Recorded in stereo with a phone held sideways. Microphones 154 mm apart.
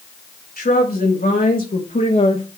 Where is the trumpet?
No trumpet in this recording.